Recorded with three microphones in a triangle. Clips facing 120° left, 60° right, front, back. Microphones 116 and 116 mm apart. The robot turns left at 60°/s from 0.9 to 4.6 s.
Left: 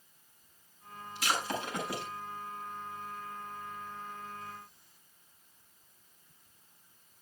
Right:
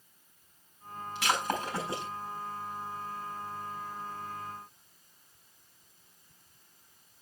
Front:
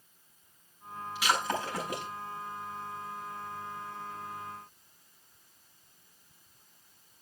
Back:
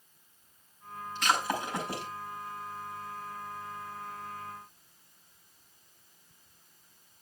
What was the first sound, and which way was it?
Breaking glass, 80° right.